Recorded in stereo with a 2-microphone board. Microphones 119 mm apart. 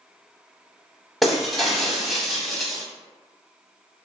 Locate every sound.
1.2 s breaking glass: centre (ahead or behind), 0.6 m